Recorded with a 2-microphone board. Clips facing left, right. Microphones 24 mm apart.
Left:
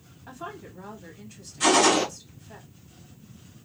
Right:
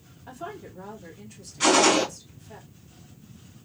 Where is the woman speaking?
10° left (ahead or behind), 2.0 m.